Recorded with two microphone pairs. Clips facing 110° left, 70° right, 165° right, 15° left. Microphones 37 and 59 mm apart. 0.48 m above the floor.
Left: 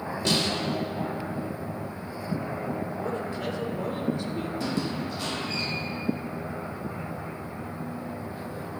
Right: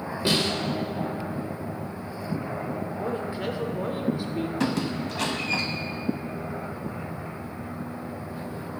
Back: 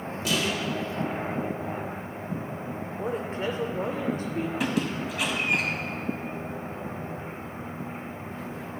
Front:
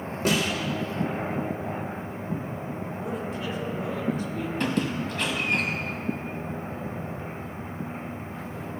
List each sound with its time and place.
0.2 s a snare drum: straight ahead, 1.9 m
3.0 s a woman speaking: 135° right, 1.7 m
4.6 s a squeak: 80° right, 1.4 m